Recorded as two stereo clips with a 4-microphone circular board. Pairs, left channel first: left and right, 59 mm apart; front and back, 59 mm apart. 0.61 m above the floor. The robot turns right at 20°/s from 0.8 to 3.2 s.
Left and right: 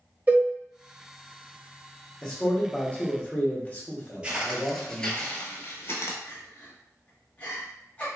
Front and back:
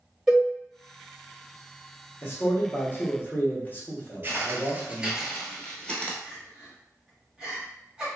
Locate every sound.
0.3 s a cowbell: 100° right, 1.2 m
2.2 s a man speaking: 20° left, 0.8 m; by 5.2 s 40° left, 0.8 m
4.2 s footsteps: 155° right, 0.7 m; by 6.1 s 65° left, 0.9 m
6.2 s crying: 125° left, 0.9 m